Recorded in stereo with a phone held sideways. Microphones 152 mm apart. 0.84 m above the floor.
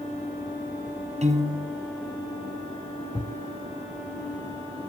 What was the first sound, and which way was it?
A piano, 50° right (ahead or behind).